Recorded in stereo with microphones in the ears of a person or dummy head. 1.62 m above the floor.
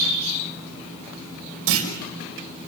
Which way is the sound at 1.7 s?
80° right.